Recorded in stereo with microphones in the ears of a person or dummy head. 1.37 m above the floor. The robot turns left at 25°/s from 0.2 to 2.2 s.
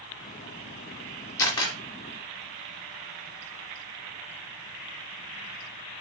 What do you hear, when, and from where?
1.4 s a camera shutter: 10° left (ahead or behind), 3.5 m; by 1.8 s 15° left (ahead or behind), 3.5 m